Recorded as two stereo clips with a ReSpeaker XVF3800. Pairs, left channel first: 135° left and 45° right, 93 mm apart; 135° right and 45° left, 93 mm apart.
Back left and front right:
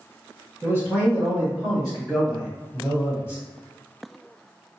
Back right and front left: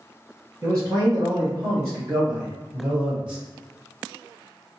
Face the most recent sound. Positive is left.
turn(degrees=115)